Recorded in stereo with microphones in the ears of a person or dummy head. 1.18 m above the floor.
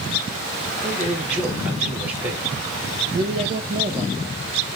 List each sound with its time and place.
0.8 s a man speaking: 10° right (ahead or behind), 1.7 m
3.1 s a man speaking: 30° right (ahead or behind), 0.5 m